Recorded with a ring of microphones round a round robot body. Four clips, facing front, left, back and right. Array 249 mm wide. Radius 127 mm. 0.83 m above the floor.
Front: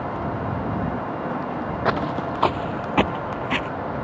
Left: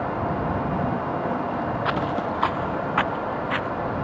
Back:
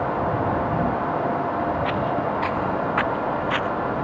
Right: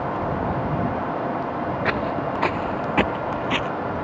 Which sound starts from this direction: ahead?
Footsteps, at 1.9 s.